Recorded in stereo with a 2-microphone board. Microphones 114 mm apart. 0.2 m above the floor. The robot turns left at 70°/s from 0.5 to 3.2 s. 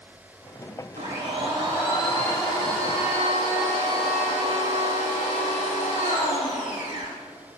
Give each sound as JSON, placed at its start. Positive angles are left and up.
{"t": 1.0, "sound": "a blender", "azimuth_deg": -105, "distance_m": 4.5}